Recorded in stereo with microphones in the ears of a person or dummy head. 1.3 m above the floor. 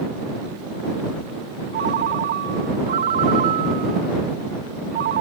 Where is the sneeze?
I don't hear a sneeze.